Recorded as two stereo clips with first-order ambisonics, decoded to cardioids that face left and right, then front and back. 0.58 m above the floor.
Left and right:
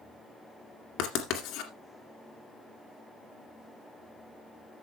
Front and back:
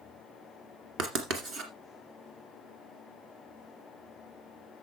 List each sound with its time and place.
1.0 s writing: 125° left, 2 m